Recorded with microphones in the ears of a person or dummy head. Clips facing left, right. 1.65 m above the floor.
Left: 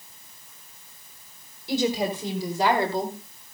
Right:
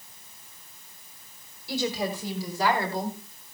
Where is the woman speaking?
20° left (ahead or behind), 4.5 m; by 3.2 s 25° left (ahead or behind), 2.5 m.